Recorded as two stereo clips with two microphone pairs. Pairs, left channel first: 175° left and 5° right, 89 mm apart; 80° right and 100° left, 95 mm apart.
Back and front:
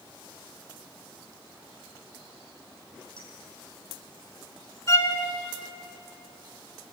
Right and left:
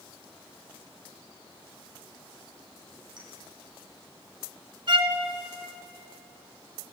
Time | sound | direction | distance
3.2 | a clink | 145° left | 8 m
4.9 | a violin | 125° left | 1.6 m